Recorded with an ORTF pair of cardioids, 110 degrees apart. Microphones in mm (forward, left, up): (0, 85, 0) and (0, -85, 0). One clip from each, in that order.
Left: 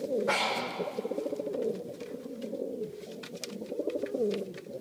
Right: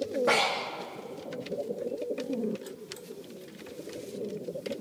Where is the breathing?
60° right, 3 m.